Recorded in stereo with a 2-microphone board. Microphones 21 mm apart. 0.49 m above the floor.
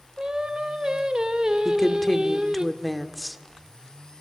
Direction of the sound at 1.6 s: 5° left (ahead or behind).